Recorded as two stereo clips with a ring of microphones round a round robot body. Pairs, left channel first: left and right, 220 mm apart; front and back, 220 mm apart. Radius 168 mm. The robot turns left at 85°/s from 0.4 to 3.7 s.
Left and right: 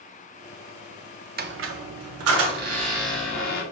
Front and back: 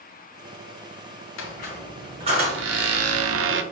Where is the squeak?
35° right, 0.5 m; by 3.6 s 135° left, 0.5 m.